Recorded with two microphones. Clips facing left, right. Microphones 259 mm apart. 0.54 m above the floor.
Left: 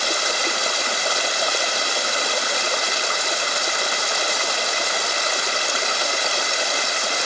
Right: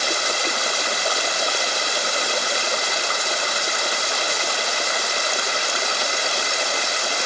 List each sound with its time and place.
Only background noise.